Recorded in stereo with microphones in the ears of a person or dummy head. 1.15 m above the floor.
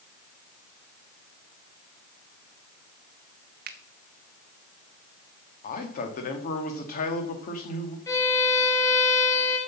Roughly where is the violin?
Centre.